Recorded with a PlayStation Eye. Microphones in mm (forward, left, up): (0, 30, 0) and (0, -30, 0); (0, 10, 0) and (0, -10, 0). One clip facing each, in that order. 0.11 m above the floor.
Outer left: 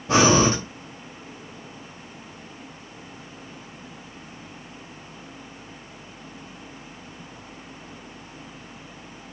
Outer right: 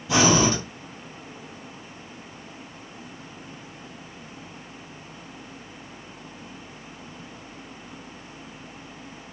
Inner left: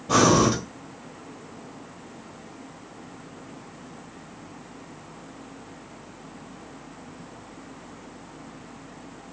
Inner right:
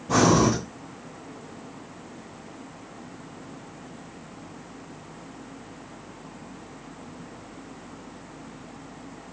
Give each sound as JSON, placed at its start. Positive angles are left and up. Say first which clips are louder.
{"t": 0.1, "sound": "breathing", "louder": "outer left 2 dB, inner left 1 dB", "side_deg": 40, "distance_m": 2.0}